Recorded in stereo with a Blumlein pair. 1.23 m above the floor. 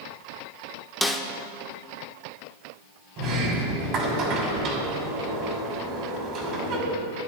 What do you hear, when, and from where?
1.0 s a snare drum: straight ahead, 0.6 m
3.2 s a sliding door: 35° right, 2 m